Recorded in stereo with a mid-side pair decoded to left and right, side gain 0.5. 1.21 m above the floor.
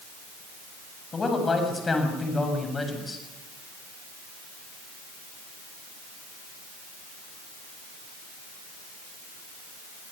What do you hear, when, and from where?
1.1 s a man speaking: 30° left, 7.5 m; by 3.2 s 20° left, 7.5 m